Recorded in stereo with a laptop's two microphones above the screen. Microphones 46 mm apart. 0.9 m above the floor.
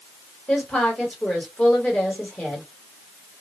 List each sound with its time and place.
0.5 s a woman speaking: 25° left (ahead or behind), 1.2 m